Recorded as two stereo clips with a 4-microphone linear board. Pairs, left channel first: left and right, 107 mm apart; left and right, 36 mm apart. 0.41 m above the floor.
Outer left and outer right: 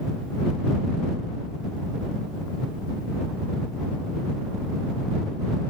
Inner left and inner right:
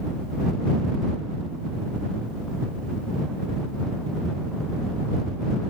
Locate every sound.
Only background noise.